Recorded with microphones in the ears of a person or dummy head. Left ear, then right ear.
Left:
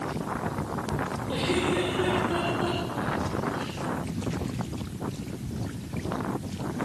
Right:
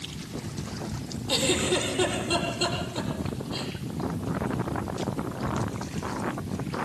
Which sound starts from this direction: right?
A giggle, at 1.3 s.